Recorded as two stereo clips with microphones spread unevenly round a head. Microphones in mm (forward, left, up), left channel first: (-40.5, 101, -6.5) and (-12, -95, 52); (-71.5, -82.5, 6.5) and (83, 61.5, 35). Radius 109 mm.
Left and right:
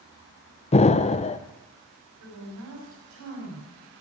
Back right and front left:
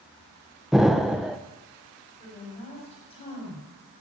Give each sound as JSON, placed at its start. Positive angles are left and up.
{"t": 0.7, "sound": "an explosion", "azimuth_deg": 135, "distance_m": 0.6}
{"t": 2.2, "sound": "a woman speaking", "azimuth_deg": -70, "distance_m": 6.0}